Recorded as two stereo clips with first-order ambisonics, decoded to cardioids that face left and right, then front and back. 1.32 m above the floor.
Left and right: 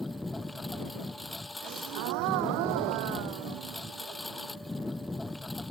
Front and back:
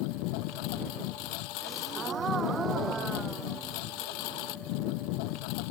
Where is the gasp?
110° right.